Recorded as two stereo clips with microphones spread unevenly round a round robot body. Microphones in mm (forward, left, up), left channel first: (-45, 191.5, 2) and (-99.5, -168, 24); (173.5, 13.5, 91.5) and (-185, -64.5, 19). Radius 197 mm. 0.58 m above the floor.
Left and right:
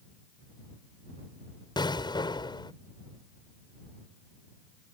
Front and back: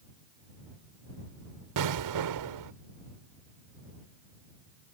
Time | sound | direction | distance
1.8 | an explosion | 160° left | ?